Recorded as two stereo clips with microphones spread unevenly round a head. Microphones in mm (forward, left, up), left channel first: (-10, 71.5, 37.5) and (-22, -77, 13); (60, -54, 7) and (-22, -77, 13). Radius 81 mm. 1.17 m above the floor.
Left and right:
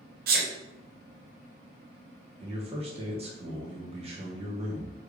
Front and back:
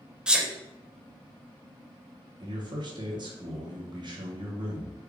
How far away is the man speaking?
About 1.2 m.